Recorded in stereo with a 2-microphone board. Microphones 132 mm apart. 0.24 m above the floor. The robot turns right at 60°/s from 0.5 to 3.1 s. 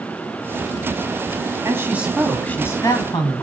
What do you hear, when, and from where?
1.6 s a woman speaking: 35° right, 1.3 m; by 3.4 s 55° left, 1.3 m